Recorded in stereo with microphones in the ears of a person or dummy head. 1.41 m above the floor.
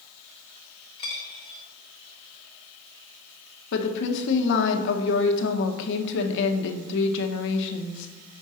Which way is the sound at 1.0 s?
25° left (ahead or behind).